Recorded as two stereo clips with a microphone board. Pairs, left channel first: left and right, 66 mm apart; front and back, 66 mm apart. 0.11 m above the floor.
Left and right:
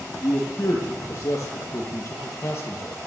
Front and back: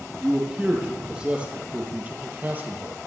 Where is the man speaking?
105° left, 4 m; by 3.1 s 130° left, 3 m.